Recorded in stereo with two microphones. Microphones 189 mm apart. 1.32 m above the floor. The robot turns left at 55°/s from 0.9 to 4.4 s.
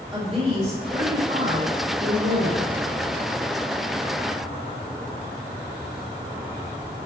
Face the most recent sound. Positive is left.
turn(degrees=135)